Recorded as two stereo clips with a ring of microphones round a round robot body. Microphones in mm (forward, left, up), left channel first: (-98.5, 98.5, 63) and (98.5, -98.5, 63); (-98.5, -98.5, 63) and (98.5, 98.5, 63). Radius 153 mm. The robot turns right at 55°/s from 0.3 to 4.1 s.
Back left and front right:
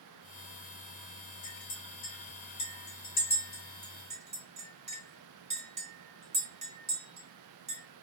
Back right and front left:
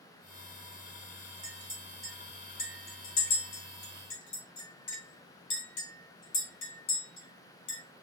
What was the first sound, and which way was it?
A clink, 100° left.